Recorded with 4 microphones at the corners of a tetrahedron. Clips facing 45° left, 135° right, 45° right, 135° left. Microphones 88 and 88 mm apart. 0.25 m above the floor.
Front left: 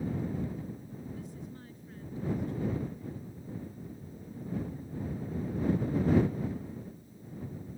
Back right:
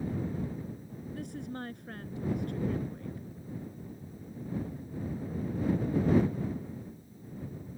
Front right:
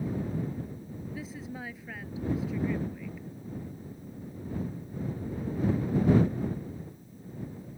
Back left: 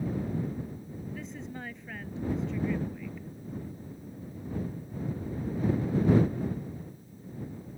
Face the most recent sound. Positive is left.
turn(degrees=-130)